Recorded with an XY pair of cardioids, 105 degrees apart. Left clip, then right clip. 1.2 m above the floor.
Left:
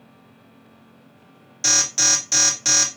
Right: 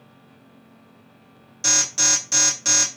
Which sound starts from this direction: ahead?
An alarm, at 1.6 s.